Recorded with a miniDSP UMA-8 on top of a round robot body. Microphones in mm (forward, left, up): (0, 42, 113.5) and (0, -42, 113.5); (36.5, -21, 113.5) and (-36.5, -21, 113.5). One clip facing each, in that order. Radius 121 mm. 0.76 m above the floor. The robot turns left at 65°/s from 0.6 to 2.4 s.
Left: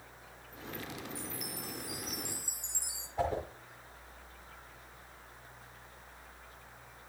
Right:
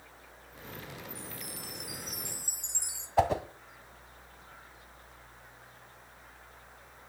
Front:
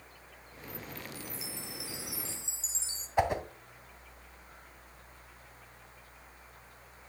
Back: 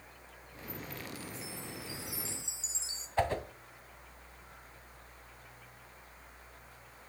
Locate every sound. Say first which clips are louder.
1.1 s a chime: left 2 dB, even; 30° left, 4 m; by 3.1 s 55° right, 4 m
3.2 s a whoosh: right 7 dB, front 3 dB; 75° right, 1.9 m